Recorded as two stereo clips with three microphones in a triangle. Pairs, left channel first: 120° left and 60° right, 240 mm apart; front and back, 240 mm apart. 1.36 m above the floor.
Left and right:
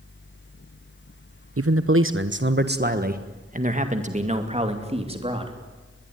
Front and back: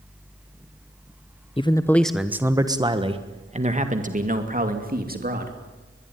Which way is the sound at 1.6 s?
70° right.